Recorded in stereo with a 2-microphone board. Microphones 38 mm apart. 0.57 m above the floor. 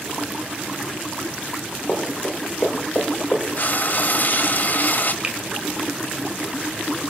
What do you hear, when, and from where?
1.9 s running footsteps: 40° left (ahead or behind), 5.5 m; by 3.4 s 45° left (ahead or behind), 6 m
3.6 s frying: 55° left (ahead or behind), 1.3 m
5.2 s a finger snap: 25° right (ahead or behind), 1.9 m